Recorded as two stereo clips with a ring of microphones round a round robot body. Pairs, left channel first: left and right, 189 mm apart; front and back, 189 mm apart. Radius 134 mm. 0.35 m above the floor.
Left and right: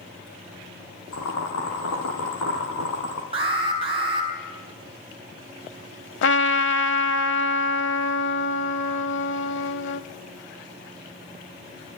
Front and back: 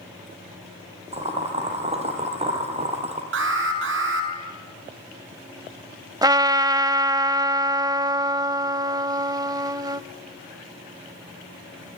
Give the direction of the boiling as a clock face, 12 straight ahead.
8 o'clock.